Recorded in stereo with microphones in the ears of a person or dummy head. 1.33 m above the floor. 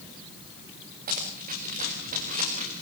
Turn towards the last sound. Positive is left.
turn(degrees=-40)  # may be behind; listen again after turning